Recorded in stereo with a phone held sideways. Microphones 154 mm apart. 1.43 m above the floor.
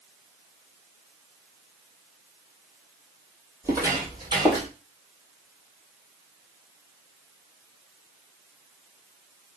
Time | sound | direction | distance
3.6 | footsteps | 15° right (ahead or behind) | 2.5 m